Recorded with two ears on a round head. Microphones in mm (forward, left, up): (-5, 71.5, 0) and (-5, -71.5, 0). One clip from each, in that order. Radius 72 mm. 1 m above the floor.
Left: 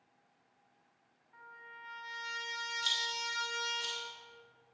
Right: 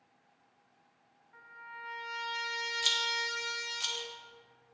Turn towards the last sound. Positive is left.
turn(degrees=-30)  # may be behind; listen again after turning